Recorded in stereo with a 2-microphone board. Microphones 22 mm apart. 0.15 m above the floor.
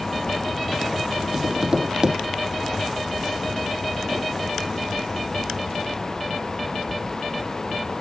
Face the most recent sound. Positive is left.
turn(degrees=-40)  # may be behind; listen again after turning